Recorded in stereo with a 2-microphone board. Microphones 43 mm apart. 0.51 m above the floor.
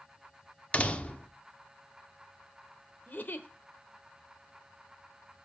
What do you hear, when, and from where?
0.7 s a door slam: 30° left (ahead or behind), 0.8 m
3.1 s a giggle: 40° left (ahead or behind), 1.1 m